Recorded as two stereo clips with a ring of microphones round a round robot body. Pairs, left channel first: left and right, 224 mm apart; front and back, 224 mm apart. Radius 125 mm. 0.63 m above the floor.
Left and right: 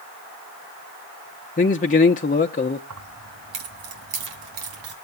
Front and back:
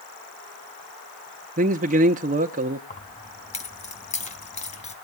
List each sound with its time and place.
1.6 s a man speaking: 135° left, 0.9 m
2.9 s keys jangling: 60° right, 3 m